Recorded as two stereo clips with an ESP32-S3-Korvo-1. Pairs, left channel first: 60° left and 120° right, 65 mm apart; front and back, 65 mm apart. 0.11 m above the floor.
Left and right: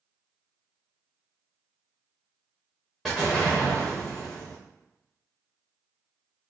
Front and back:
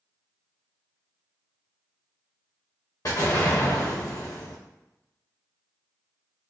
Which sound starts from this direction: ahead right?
An explosion, at 3.0 s.